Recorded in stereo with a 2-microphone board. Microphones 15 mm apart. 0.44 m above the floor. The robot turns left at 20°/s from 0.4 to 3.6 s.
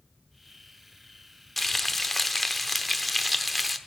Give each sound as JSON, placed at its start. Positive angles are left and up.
{"t": 1.6, "sound": "frying", "side_deg": 15, "distance_m": 0.8}